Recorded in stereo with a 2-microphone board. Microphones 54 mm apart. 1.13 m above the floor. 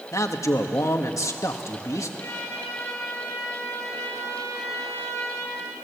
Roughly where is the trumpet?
Left.